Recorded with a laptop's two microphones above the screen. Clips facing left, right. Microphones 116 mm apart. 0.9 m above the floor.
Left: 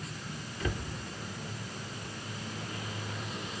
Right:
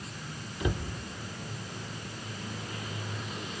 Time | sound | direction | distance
0.6 | a cupboard door | 15° right (ahead or behind) | 0.9 m